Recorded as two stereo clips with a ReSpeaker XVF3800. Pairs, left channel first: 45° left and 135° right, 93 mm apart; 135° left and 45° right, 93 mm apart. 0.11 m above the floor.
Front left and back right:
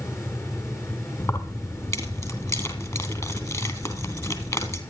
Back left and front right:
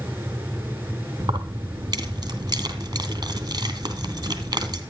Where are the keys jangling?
5° right, 2.5 m.